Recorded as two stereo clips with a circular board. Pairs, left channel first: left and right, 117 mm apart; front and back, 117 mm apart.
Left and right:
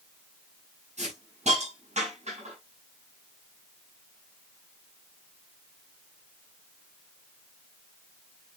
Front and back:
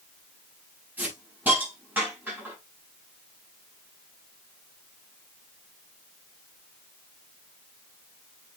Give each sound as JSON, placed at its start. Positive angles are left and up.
{"t": 1.0, "sound": "a hiss", "azimuth_deg": -105, "distance_m": 7.0}